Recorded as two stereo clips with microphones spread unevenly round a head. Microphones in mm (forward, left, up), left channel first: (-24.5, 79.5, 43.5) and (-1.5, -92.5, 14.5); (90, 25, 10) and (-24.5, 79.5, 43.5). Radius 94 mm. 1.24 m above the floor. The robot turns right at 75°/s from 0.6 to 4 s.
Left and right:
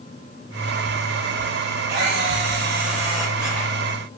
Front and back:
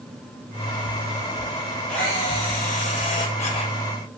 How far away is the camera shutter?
About 7 m.